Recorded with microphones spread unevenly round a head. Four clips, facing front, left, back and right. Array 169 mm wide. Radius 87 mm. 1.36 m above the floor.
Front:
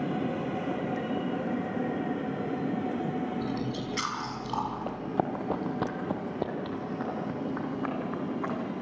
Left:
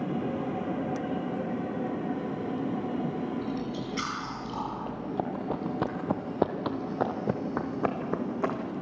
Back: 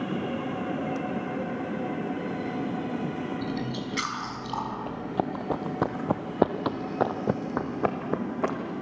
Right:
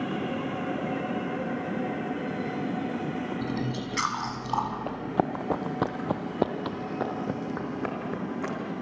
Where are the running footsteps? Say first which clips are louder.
Right 4 dB, back 1 dB; 85° right, 1.8 m; by 8.7 s 160° left, 3.5 m.